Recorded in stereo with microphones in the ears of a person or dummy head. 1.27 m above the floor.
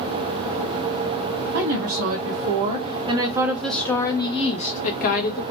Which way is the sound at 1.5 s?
60° right (ahead or behind).